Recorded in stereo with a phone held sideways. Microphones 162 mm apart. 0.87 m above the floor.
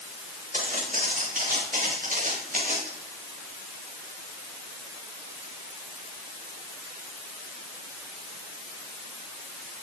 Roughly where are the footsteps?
Right.